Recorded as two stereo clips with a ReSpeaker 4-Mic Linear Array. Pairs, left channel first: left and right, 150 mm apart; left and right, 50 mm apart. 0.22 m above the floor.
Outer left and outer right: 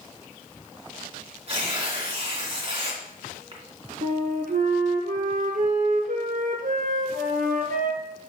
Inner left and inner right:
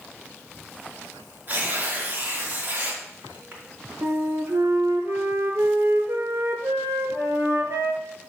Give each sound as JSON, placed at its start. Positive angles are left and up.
{"t": 1.5, "sound": "tearing paper", "side_deg": -40, "distance_m": 2.5}
{"t": 4.0, "sound": "a flute", "side_deg": -65, "distance_m": 1.2}